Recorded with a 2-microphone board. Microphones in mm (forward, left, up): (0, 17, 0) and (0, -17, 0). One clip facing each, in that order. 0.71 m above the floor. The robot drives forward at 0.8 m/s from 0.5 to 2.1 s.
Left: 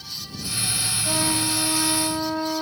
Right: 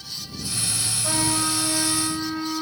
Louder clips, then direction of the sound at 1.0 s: Right 1 dB; 70° right (ahead or behind).